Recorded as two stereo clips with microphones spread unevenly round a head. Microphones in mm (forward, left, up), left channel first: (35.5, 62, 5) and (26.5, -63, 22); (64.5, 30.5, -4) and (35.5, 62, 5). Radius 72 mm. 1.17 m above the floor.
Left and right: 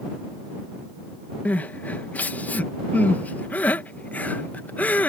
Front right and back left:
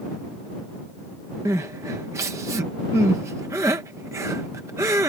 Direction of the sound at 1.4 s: 160° left.